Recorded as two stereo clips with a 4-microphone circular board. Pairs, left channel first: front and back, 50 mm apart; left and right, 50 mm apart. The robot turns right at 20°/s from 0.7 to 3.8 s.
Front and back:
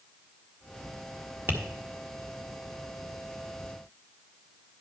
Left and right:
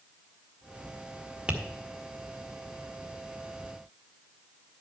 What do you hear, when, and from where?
1.5 s tapping: 155° right, 1.4 m; by 1.6 s 150° right, 1.4 m